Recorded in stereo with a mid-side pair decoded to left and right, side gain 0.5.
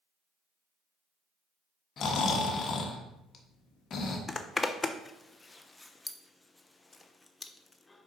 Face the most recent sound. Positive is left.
turn(degrees=20)